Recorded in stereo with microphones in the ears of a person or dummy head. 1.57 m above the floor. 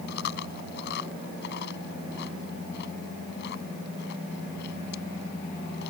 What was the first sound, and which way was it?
Chewing, 60° left (ahead or behind).